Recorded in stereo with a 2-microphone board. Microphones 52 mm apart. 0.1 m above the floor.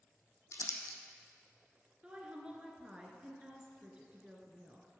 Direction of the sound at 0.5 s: 70° left (ahead or behind).